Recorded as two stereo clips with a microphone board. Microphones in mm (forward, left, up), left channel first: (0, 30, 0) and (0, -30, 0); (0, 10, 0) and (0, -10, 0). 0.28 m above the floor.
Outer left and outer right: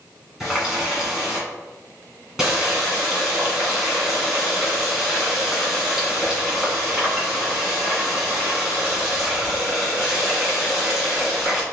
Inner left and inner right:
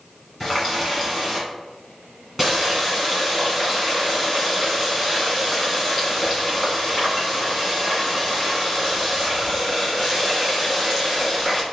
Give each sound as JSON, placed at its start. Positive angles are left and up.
{"t": 0.4, "sound": "a running tap", "side_deg": -5, "distance_m": 2.0}